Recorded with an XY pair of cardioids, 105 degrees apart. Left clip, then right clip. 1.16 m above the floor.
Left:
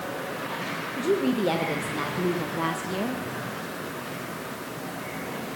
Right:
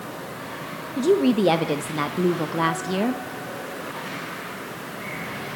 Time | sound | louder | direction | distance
1.0 | a woman speaking | right 6 dB | 45° right | 0.9 m